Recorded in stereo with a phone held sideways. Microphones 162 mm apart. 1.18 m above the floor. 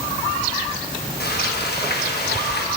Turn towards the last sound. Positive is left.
turn(degrees=90)